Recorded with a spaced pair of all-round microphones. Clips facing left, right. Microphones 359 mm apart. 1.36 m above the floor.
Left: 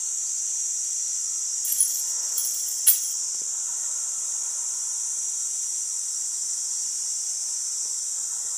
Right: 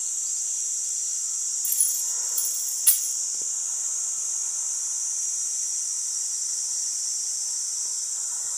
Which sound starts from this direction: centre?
Keys jangling, at 1.6 s.